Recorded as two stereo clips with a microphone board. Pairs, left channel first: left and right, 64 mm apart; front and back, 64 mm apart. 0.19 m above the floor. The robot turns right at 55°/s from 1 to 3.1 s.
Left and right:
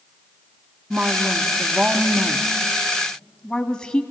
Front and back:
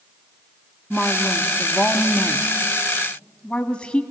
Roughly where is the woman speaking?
Right.